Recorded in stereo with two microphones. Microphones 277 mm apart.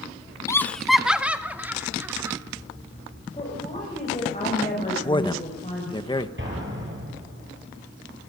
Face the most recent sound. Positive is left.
turn(degrees=-45)  # may be behind; listen again after turning